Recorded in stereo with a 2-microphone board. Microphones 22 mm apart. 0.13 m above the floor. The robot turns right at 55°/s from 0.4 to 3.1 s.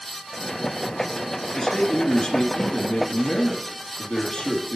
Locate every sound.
1.5 s a man speaking: 20° left, 2.0 m; by 4.8 s 105° left, 2.0 m